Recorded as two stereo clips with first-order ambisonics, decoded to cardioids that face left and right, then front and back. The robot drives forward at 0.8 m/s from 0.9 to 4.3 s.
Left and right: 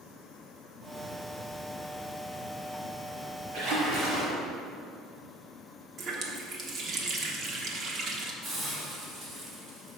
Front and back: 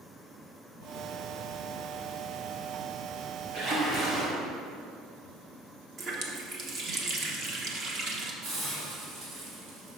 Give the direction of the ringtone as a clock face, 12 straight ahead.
No ringtone in this recording.